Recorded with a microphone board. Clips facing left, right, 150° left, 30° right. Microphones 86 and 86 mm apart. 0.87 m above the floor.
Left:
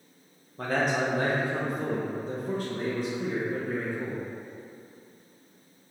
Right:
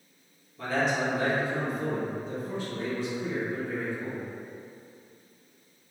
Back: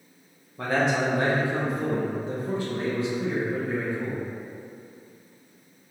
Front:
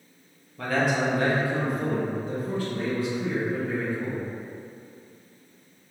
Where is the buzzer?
I don't hear a buzzer.